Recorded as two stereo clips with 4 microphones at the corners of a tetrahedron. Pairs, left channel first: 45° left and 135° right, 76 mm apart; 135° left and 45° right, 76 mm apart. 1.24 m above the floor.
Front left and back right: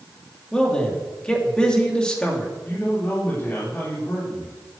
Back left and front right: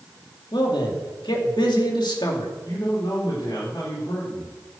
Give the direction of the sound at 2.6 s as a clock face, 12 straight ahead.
8 o'clock.